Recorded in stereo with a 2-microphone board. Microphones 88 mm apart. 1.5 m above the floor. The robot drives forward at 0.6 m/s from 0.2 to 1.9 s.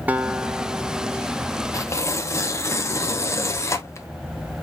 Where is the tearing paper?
35° left (ahead or behind), 0.6 m; by 4.1 s 30° left (ahead or behind), 0.7 m.